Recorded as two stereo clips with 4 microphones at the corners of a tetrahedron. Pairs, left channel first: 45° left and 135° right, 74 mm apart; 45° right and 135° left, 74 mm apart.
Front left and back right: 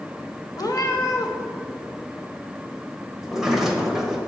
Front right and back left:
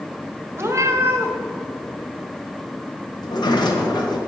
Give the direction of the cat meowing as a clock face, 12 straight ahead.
9 o'clock.